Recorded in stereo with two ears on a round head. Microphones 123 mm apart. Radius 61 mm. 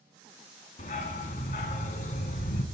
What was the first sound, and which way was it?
A dog barking, 65° left (ahead or behind).